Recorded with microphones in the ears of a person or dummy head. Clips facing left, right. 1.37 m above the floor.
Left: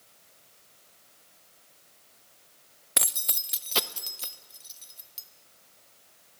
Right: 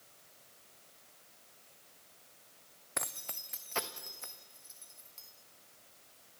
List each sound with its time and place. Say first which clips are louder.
3.0 s keys jangling: left 5 dB; 45° left (ahead or behind), 0.5 m